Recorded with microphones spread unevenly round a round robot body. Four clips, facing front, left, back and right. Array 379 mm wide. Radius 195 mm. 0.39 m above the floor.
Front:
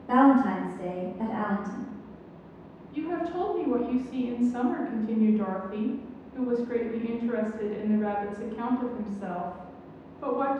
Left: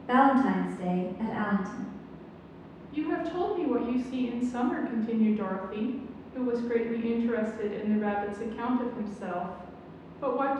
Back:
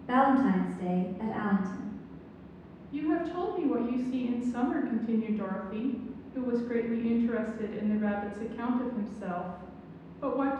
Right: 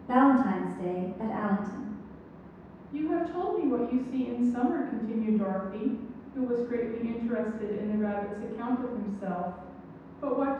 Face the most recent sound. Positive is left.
turn(degrees=40)